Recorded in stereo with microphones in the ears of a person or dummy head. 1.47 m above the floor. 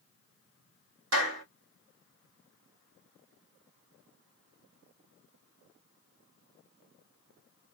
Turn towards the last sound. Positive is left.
turn(degrees=-65)  # may be behind; listen again after turning